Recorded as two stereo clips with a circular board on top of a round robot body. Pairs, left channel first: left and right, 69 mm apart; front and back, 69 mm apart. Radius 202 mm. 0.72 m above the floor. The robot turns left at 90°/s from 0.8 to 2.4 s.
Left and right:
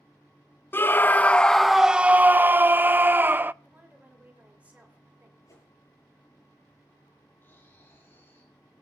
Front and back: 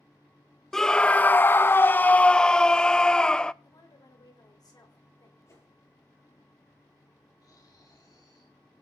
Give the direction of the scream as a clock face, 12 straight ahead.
9 o'clock.